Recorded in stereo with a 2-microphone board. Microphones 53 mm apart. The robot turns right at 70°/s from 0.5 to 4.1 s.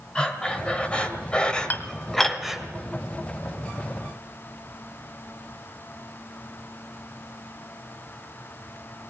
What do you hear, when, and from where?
0.1 s breathing: 15° left (ahead or behind), 1.6 m; by 2.6 s 10° right (ahead or behind), 1.6 m
1.7 s dishes clattering: 35° left (ahead or behind), 1.2 m; by 2.4 s centre (ahead or behind), 1.2 m